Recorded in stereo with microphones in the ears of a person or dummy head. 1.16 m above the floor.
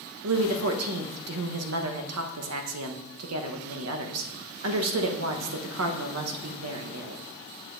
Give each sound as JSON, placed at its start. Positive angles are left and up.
{"t": 0.2, "sound": "a woman speaking", "side_deg": -80, "distance_m": 0.9}